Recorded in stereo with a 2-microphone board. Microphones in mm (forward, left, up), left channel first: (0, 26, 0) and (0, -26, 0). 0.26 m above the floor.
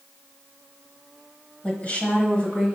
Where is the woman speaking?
25° left (ahead or behind), 1.2 m; by 2.7 s 30° left (ahead or behind), 1.9 m.